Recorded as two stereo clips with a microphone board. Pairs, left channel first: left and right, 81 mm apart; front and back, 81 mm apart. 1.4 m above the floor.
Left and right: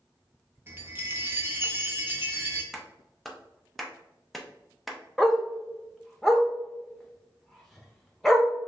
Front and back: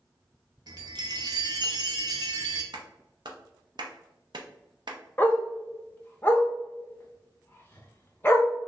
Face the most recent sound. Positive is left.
turn(degrees=5)